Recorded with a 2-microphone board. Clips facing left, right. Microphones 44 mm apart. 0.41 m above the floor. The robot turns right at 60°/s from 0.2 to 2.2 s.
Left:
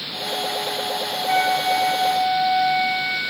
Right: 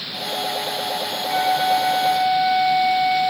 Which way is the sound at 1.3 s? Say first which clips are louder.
Right 1 dB; 125° left.